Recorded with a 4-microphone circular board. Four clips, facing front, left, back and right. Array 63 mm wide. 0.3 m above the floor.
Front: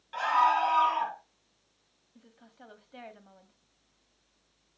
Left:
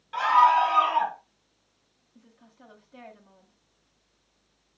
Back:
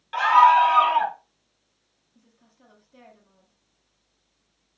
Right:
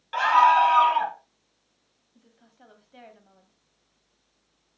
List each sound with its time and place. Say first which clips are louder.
0.1 s a scream: right 1 dB, back 10 dB; 135° right, 2 m; by 1.2 s 165° right, 1.9 m
2.1 s a woman speaking: left 2 dB, front 5 dB; 5° right, 1.9 m